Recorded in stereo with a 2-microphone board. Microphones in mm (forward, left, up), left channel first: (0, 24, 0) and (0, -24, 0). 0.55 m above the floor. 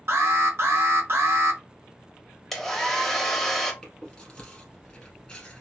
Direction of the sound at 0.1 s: 60° right (ahead or behind).